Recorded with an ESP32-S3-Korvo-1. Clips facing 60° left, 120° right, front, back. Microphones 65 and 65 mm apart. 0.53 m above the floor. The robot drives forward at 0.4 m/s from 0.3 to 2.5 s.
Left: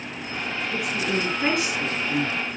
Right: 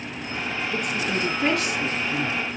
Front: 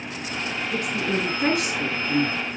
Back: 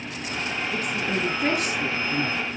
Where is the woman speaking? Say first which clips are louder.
Left 1 dB, front 3 dB; 10° right, 6 m; by 2.6 s 15° right, 5.5 m.